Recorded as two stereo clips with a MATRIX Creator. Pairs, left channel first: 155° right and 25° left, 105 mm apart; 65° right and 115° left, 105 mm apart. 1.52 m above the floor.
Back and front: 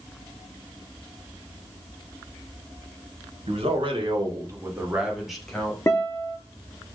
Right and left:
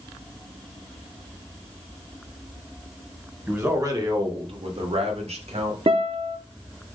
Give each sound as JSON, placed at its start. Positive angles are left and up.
{"t": 3.5, "sound": "a man speaking", "azimuth_deg": 45, "distance_m": 1.2}
{"t": 5.9, "sound": "a guitar", "azimuth_deg": 140, "distance_m": 0.6}